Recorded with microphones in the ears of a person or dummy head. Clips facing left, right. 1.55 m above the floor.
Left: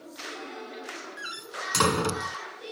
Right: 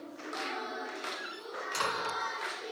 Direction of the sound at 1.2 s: 75° left (ahead or behind).